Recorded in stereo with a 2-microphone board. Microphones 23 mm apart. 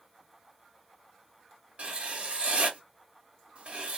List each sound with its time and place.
1.8 s writing: 55° right (ahead or behind), 1.3 m